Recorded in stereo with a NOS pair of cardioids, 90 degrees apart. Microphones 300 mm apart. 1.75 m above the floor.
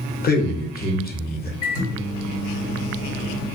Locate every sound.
0.2 s a man speaking: 30° left, 0.9 m
1.6 s a microwave: 50° left, 1.4 m